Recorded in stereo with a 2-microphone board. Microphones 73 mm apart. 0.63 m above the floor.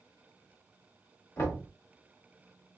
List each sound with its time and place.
1.4 s knocking: 35° left (ahead or behind), 1.8 m